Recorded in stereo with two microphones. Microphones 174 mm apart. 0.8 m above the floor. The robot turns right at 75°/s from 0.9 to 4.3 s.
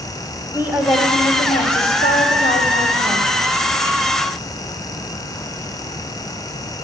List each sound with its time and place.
0.5 s a woman speaking: 10° right, 1.9 m; by 3.3 s 165° left, 1.9 m